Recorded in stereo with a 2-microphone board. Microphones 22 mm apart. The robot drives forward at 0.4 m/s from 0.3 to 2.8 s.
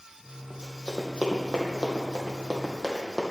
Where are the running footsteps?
55° right (ahead or behind), 3 m; by 3.2 s 30° right (ahead or behind), 3 m.